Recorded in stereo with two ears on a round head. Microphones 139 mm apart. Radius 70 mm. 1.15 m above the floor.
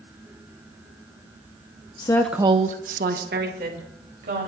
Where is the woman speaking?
30° left (ahead or behind), 0.7 m; by 4.5 s 60° right (ahead or behind), 3 m.